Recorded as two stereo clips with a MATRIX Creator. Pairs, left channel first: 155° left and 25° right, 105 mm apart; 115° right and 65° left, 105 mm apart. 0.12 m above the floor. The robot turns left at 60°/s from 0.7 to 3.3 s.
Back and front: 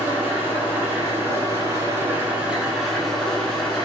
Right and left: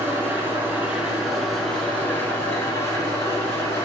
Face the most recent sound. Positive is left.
turn(degrees=-135)